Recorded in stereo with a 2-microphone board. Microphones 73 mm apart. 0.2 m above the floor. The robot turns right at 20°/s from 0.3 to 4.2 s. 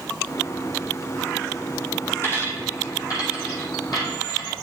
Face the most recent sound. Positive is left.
turn(degrees=75)  # may be behind; listen again after turning